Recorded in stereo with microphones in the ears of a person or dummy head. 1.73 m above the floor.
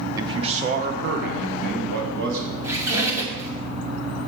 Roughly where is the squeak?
Centre.